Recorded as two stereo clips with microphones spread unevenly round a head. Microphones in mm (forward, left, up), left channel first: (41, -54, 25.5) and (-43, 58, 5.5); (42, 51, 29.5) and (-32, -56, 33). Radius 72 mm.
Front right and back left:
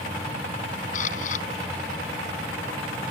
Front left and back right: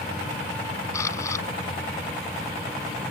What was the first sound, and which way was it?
A camera shutter, 15° right.